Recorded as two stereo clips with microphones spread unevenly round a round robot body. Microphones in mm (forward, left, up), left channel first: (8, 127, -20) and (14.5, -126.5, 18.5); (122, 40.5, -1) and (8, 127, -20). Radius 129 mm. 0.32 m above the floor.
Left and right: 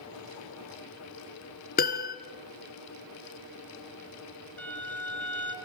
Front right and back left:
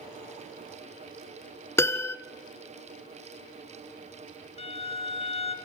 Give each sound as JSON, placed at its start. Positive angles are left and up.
{"t": 1.8, "sound": "a piano", "azimuth_deg": 35, "distance_m": 1.6}
{"t": 4.6, "sound": "a violin", "azimuth_deg": 10, "distance_m": 3.5}